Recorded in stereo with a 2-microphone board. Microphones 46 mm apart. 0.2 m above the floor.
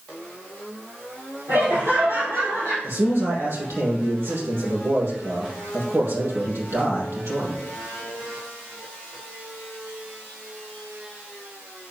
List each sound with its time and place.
1.5 s laughter: 75° right (ahead or behind), 4.5 m; by 2.7 s 80° right, 4.5 m
2.8 s a man speaking: 65° right (ahead or behind), 4.5 m